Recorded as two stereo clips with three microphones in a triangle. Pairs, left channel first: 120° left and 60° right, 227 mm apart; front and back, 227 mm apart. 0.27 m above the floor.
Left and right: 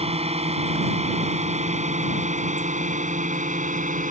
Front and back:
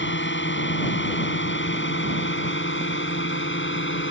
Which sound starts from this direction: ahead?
A drone, at 0.0 s.